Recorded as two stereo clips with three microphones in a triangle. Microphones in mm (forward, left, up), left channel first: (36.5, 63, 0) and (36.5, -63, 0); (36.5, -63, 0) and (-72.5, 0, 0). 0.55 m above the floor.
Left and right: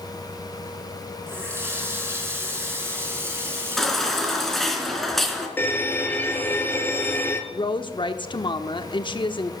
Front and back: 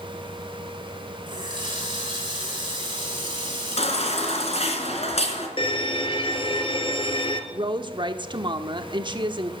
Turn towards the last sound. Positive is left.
turn(degrees=120)